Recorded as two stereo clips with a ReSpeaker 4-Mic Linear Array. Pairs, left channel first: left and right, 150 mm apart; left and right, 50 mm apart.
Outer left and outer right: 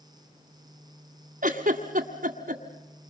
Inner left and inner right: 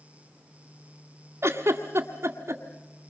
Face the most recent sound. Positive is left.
turn(degrees=-65)  # may be behind; listen again after turning